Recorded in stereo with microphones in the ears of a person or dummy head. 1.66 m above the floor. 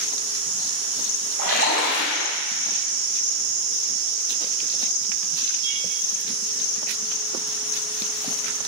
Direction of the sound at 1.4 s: 80° right.